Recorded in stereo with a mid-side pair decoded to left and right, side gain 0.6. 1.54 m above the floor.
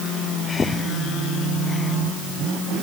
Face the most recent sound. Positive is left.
turn(degrees=25)